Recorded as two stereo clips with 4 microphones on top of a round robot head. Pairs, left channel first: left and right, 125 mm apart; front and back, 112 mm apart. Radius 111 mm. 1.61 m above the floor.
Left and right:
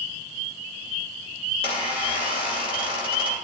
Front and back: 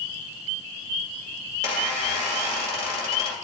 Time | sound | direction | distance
1.5 | a squeak | 145° right | 2.0 m